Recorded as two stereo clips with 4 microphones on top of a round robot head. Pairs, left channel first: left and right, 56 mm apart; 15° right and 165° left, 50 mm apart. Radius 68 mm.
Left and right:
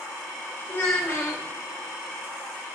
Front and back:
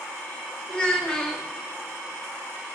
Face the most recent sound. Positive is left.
turn(degrees=50)